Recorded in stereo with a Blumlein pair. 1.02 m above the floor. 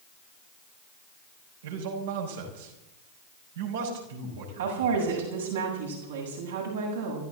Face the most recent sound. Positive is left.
turn(degrees=-65)